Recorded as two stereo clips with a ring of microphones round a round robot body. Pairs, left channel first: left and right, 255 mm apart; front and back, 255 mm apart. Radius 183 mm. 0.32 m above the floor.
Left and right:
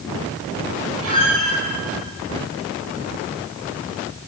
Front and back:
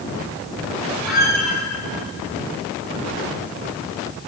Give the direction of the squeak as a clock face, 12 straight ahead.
5 o'clock.